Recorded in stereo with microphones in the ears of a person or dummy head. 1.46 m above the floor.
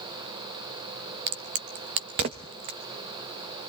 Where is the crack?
30° right (ahead or behind), 0.8 m.